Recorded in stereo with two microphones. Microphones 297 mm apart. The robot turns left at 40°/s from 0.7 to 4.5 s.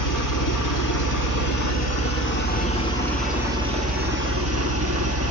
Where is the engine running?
100° left, 2.5 m; by 5.3 s 50° right, 2.5 m.